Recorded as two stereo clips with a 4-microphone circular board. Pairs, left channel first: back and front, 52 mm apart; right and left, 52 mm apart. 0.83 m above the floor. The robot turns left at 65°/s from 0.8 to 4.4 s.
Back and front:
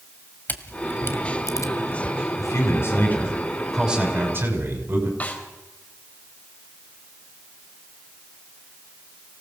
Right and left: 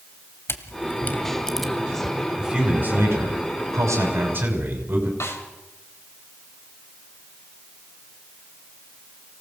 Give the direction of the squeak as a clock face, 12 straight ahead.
No squeak in this recording.